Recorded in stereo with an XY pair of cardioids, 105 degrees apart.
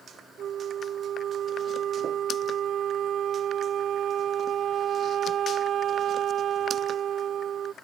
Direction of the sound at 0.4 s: 65° right.